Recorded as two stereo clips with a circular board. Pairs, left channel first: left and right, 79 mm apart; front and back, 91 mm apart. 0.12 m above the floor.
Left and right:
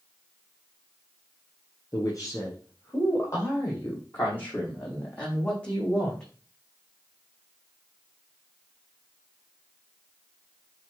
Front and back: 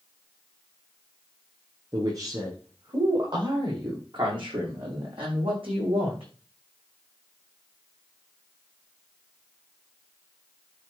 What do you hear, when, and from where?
1.9 s a man speaking: 135° left, 6.5 m; by 6.3 s 170° left, 7 m